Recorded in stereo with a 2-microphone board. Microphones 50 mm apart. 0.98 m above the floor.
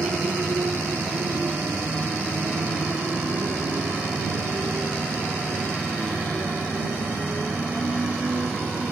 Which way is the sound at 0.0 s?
70° right (ahead or behind).